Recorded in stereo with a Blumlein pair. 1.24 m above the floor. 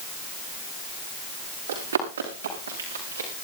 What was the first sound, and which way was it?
Running footsteps, 65° right.